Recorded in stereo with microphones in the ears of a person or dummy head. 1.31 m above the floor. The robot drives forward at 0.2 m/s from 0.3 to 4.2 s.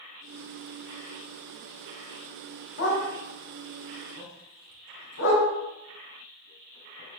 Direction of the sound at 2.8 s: 60° left (ahead or behind).